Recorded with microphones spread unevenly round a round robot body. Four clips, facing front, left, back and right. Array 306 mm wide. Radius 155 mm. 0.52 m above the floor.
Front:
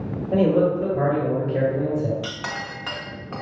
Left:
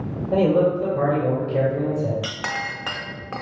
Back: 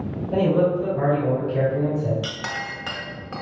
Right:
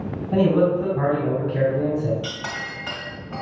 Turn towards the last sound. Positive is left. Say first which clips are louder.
# left 2 dB, back 1 dB
turn(degrees=90)